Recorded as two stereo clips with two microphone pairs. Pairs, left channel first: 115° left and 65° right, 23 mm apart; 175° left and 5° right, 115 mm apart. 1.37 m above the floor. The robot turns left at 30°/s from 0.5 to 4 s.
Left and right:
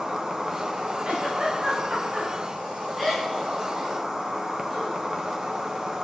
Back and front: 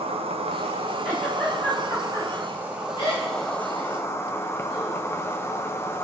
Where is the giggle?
85° right, 4.5 m; by 5.0 s 170° right, 4.5 m.